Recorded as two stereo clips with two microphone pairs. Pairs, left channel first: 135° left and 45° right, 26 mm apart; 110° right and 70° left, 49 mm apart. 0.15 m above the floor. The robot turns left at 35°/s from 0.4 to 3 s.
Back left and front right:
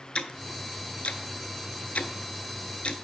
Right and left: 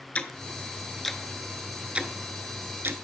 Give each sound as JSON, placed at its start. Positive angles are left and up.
{"t": 0.1, "sound": "ticking", "azimuth_deg": 180, "distance_m": 0.6}